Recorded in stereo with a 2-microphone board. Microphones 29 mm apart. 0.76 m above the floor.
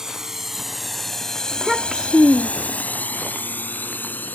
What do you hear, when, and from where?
0.0 s a drone: 20° right (ahead or behind); by 4.3 s 85° left
1.5 s a child speaking: centre (ahead or behind)